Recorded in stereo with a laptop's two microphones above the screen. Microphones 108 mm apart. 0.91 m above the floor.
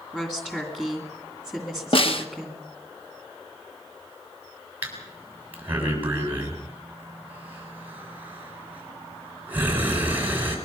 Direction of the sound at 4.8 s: 15° right (ahead or behind).